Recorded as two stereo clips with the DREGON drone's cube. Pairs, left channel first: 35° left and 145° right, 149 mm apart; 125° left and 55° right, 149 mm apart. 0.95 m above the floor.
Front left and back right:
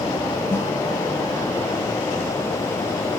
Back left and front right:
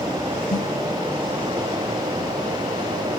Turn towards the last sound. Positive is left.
turn(degrees=110)